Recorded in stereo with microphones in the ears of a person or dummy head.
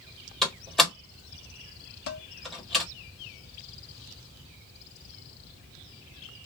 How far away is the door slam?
About 1.3 m.